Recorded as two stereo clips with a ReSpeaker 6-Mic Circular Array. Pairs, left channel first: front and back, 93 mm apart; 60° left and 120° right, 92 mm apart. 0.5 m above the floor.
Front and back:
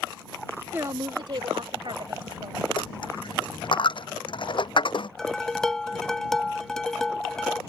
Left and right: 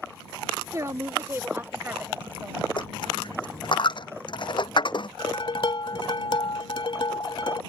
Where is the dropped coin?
30° left.